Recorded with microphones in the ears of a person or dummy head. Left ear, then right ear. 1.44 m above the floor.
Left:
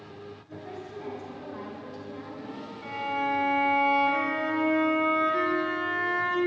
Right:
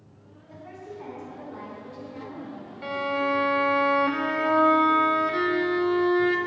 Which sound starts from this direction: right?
A violin, at 2.8 s.